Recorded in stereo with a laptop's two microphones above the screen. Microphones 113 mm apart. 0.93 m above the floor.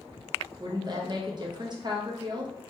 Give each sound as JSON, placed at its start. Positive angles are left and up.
{"t": 0.6, "sound": "a woman speaking", "side_deg": -40, "distance_m": 0.7}